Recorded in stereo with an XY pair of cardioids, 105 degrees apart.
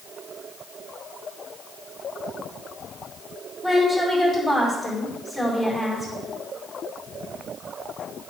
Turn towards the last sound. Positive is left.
turn(degrees=10)